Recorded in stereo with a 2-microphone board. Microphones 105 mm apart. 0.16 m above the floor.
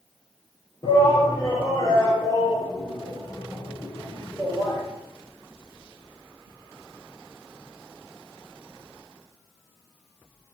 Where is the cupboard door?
I don't hear a cupboard door.